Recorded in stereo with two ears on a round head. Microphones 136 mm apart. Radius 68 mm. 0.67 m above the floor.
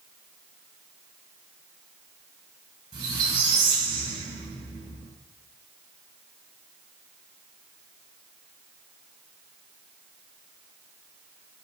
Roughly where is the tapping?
I don't hear tapping.